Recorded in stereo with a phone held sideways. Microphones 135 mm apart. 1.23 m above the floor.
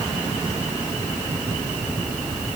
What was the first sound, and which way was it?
Only background noise.